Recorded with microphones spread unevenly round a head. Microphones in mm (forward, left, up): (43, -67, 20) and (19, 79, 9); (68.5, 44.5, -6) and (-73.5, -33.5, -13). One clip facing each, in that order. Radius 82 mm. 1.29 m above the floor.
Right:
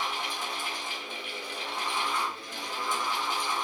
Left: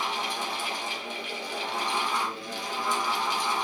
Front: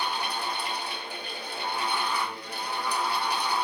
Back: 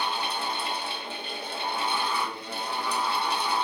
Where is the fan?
140° left, 0.8 m.